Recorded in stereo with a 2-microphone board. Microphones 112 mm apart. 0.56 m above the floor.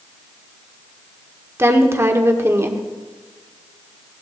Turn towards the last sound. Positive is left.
turn(degrees=-25)  # may be behind; listen again after turning